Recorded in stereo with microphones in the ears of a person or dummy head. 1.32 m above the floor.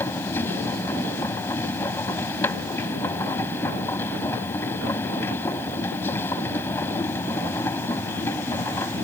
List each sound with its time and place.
0.0 s a machine running: 10° left (ahead or behind)